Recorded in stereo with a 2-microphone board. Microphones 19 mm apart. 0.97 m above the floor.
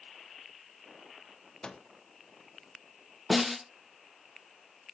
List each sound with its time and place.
1.6 s a microwave: 45° left (ahead or behind), 0.7 m
3.3 s a snare drum: 5° right (ahead or behind), 0.6 m